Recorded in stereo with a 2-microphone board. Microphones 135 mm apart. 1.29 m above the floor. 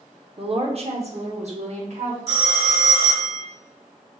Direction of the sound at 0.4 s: 45° right (ahead or behind).